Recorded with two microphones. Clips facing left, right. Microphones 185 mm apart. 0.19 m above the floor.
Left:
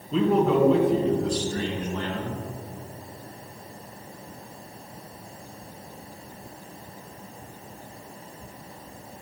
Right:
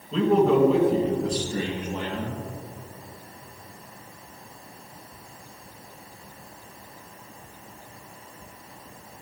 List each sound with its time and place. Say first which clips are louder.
0.1 s a man speaking: right 1 dB; 5° left (ahead or behind), 2.5 m; by 2.4 s 15° right (ahead or behind), 3 m